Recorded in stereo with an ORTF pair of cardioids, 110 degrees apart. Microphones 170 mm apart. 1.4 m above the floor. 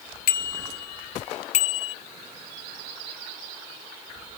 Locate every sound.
0.3 s a bicycle bell: 60° left; by 1.9 s 35° left